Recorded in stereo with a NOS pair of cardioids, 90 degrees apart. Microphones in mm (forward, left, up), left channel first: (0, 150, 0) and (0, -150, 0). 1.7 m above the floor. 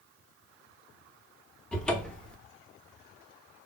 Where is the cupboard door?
5° left, 0.6 m.